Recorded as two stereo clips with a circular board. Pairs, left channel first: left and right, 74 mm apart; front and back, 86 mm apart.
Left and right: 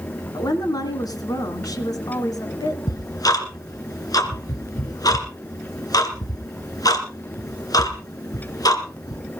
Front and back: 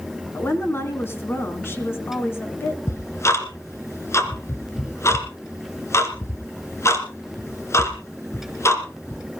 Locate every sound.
0.3 s a woman speaking: 60° left, 3 m
2.9 s ticking: 55° left, 2 m